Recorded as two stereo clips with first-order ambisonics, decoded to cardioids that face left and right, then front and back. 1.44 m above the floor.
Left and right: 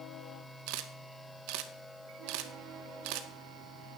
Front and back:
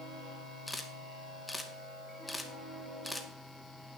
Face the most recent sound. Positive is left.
turn(degrees=-85)